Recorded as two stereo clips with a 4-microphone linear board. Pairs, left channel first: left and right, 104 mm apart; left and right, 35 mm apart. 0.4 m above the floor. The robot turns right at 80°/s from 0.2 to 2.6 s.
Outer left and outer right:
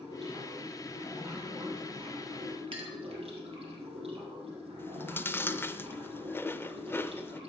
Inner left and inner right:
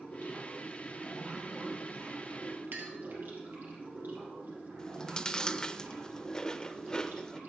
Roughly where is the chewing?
Left.